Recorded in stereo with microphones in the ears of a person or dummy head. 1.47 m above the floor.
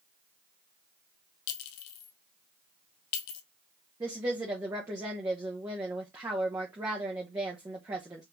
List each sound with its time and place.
1.5 s a clink: 60° left (ahead or behind), 1.0 m
4.0 s a woman speaking: 15° right (ahead or behind), 1.1 m